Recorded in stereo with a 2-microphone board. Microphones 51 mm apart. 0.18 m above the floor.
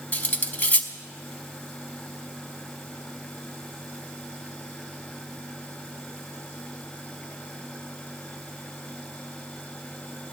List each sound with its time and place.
0.1 s cutlery clinking: 35° left (ahead or behind), 0.7 m